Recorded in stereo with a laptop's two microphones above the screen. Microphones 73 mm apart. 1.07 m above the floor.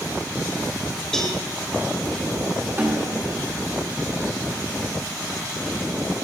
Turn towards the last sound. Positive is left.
turn(degrees=-30)  # may be behind; listen again after turning